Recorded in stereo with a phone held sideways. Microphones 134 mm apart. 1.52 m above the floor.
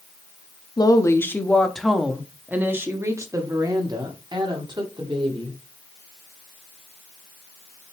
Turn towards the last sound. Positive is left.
turn(degrees=-40)  # may be behind; listen again after turning